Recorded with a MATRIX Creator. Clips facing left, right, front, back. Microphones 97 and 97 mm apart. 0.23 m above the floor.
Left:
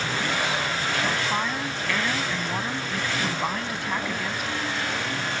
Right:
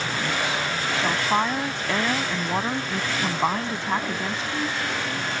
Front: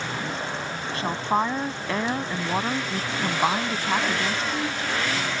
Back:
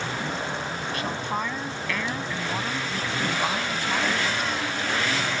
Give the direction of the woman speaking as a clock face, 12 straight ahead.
1 o'clock.